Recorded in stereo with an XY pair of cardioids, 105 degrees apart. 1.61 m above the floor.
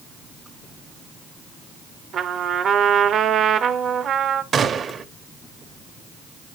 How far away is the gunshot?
About 1.0 m.